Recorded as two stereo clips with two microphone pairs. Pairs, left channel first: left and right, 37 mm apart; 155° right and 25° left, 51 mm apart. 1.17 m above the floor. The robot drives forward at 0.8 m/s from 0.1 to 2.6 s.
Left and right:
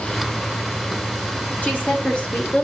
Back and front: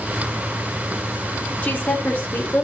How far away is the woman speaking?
About 3.5 m.